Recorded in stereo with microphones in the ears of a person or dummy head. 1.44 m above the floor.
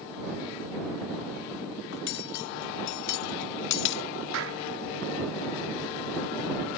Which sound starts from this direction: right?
A clap, at 4.3 s.